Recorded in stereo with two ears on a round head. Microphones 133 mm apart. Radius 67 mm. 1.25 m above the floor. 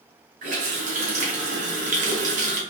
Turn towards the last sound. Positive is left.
turn(degrees=-55)  # may be behind; listen again after turning